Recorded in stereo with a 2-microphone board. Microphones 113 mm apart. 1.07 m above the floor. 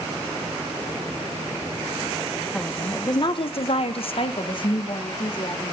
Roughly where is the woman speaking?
Centre.